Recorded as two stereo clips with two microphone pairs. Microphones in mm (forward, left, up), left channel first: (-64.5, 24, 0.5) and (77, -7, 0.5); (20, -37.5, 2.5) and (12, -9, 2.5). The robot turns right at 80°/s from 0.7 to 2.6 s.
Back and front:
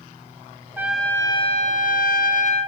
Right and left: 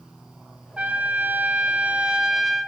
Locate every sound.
0.8 s a trumpet: 60° left, 1.3 m; by 2.7 s 150° right, 1.3 m